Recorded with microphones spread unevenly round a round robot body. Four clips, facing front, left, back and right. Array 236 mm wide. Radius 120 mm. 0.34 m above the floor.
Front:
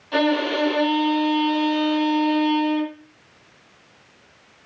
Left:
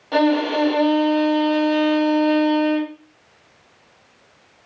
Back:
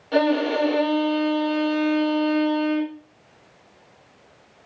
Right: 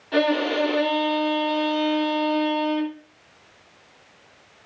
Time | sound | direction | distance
0.1 | a violin | 115° left | 1.8 m